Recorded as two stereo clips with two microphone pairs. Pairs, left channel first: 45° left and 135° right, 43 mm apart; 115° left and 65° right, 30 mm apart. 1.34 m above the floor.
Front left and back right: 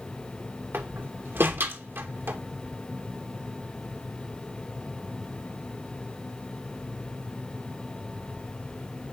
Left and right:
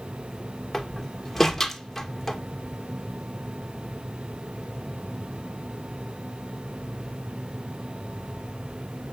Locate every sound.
0.7 s a door slam: 160° right, 2.5 m